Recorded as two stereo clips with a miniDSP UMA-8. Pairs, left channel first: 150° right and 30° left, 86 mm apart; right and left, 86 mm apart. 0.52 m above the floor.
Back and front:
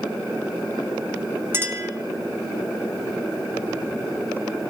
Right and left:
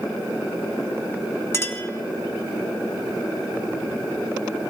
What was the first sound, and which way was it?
A clink, 30° right.